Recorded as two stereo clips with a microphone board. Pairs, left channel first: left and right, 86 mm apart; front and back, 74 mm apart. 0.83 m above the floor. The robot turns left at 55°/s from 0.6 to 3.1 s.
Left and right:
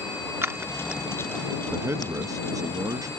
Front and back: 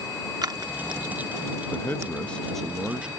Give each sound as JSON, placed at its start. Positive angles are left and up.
{"t": 0.4, "sound": "scissors", "azimuth_deg": -150}
{"t": 1.7, "sound": "a man speaking", "azimuth_deg": -35}